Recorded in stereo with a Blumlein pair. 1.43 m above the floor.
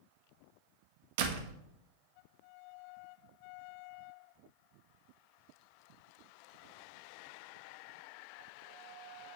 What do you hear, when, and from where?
1.2 s a door slam: 50° right, 1.3 m